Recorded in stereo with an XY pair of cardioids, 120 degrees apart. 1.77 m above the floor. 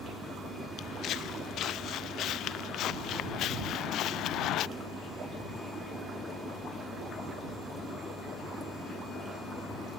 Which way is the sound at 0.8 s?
65° left.